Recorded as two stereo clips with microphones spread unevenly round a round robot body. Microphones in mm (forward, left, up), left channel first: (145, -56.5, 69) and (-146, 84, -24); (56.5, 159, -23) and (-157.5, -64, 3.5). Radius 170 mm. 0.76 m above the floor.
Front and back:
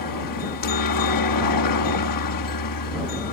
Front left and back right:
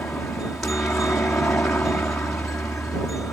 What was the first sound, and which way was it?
A helicopter, 40° right.